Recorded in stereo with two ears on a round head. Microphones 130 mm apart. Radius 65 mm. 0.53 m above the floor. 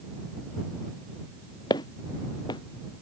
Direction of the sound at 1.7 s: 30° left (ahead or behind).